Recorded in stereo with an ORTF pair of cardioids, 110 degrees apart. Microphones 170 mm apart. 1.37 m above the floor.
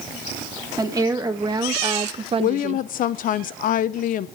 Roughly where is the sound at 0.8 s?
Ahead.